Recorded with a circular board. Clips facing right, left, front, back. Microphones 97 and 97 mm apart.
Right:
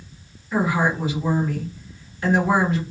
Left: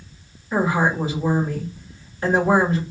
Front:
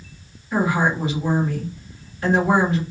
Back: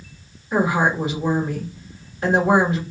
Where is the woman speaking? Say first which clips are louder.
Left 1 dB, back 1 dB; 135° left, 1.3 m.